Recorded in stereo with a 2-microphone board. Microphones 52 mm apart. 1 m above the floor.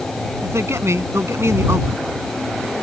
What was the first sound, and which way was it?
A man speaking, 65° right (ahead or behind).